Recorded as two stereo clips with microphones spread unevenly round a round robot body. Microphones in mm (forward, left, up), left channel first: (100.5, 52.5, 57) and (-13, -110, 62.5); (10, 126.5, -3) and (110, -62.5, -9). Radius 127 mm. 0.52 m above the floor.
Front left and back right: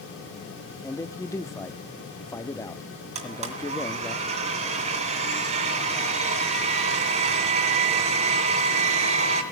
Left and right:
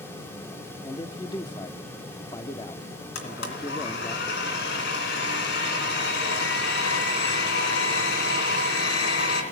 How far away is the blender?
About 2.5 m.